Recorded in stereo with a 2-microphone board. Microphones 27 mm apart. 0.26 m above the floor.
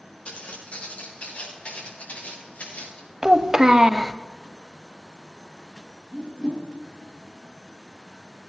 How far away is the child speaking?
About 0.7 m.